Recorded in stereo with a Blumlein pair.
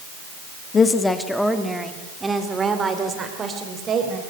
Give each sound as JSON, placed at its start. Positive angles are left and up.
{"t": 0.7, "sound": "a woman speaking", "azimuth_deg": 20, "distance_m": 1.8}